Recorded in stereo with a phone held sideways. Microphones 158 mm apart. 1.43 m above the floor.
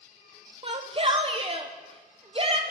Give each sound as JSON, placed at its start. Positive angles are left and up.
{"t": 0.6, "sound": "a shout", "side_deg": -35, "distance_m": 0.9}